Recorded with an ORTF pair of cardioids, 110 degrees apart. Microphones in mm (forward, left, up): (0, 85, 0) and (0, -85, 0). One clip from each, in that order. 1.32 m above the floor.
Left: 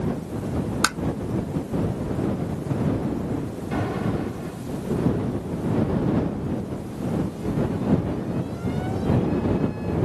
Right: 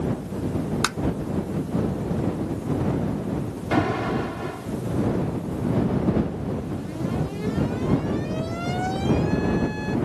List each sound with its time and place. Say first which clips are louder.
0.8 s tapping: left 4 dB; 25° left
3.7 s an alarm: right 5 dB; 60° right